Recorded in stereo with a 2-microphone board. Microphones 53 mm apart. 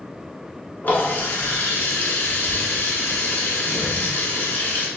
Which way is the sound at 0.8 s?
35° left (ahead or behind).